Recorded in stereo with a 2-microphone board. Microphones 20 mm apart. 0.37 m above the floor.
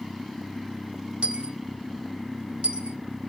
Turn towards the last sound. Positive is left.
turn(degrees=-75)  # may be behind; listen again after turning